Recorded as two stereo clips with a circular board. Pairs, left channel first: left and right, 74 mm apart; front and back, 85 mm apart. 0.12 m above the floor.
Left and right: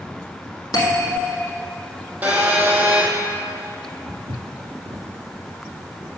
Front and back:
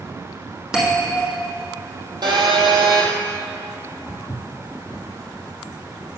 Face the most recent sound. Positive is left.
turn(degrees=-55)